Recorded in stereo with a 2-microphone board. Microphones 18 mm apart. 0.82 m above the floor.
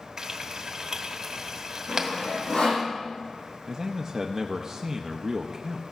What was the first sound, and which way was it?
Frying, 40° right (ahead or behind).